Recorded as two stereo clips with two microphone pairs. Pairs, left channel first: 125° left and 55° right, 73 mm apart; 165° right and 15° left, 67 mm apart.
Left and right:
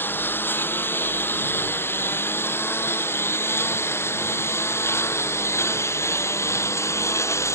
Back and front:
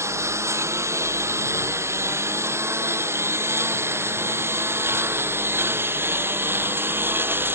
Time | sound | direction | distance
0.0 | a lawn mower | 60° left | ?